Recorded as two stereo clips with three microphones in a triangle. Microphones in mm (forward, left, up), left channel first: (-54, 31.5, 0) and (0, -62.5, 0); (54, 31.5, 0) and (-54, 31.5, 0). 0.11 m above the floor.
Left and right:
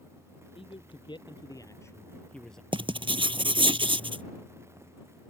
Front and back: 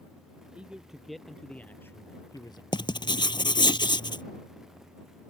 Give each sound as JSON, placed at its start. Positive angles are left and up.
{"t": 0.6, "sound": "a man speaking", "azimuth_deg": 100}
{"t": 2.7, "sound": "writing", "azimuth_deg": -35}